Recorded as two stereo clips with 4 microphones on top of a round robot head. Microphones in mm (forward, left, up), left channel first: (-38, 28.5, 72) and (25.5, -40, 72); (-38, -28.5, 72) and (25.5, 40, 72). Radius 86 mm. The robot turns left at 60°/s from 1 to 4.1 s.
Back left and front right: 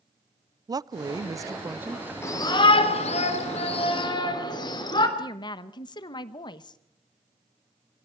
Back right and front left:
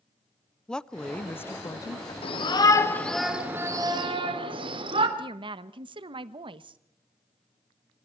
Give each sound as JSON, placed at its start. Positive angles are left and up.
{"t": 0.7, "sound": "a woman speaking", "azimuth_deg": -55, "distance_m": 0.5}
{"t": 2.2, "sound": "a shout", "azimuth_deg": -165, "distance_m": 3.5}
{"t": 5.2, "sound": "a woman speaking", "azimuth_deg": 85, "distance_m": 1.0}